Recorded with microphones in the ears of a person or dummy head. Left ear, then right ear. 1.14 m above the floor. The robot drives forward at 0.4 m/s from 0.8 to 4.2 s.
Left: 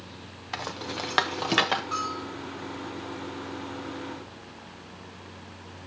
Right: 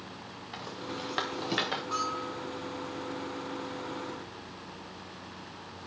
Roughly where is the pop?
No pop in this recording.